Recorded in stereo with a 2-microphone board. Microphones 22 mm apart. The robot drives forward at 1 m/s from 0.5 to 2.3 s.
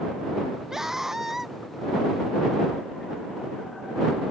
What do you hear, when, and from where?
0.7 s a scream: 25° right (ahead or behind); by 1.6 s 20° right (ahead or behind)